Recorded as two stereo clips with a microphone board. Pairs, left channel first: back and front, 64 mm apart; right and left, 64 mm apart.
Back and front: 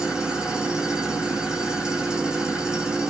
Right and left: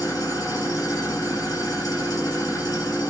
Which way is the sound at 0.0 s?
80° right.